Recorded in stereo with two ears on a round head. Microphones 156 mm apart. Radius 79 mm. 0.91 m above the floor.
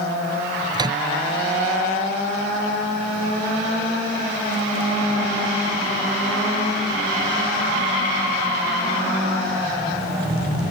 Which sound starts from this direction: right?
A microwave, at 0.7 s.